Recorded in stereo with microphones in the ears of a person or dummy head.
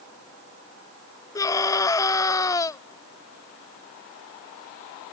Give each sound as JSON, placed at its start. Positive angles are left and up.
{"t": 1.4, "sound": "a scream", "side_deg": 20}